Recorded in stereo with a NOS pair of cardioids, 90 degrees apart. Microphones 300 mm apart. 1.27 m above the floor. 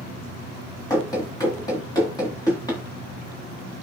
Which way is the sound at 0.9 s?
10° left.